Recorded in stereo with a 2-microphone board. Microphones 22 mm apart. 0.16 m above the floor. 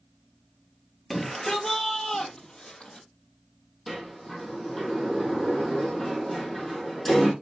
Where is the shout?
10° left (ahead or behind), 2.5 m; by 3.1 s 45° left (ahead or behind), 4.5 m.